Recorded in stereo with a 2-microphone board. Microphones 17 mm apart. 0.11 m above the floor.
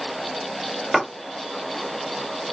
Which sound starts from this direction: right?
A clap, at 0.9 s.